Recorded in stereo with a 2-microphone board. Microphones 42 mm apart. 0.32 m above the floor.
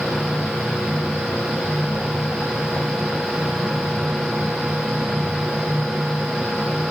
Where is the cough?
No cough in this recording.